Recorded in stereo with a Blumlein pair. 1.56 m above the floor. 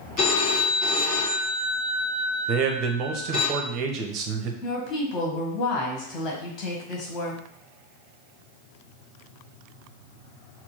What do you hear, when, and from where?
0.2 s a phone ringing: 35° left, 1.7 m
2.5 s a man speaking: 35° right, 0.8 m
4.6 s a woman speaking: 30° left, 1.6 m